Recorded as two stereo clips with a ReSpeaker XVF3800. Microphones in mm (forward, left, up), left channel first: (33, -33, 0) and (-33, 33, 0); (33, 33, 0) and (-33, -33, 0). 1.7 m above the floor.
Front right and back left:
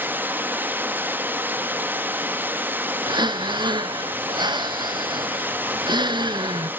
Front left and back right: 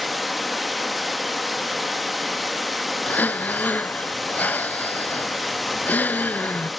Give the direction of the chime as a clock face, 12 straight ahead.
I don't hear a chime.